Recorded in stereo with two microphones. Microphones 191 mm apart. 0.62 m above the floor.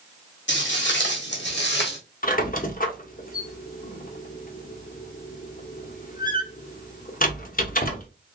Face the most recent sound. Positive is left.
turn(degrees=50)  # may be behind; listen again after turning